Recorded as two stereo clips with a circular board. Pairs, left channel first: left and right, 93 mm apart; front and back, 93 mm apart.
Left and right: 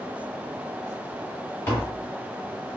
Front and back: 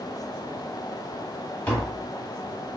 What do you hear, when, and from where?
1.7 s tapping: 55° left, 1.4 m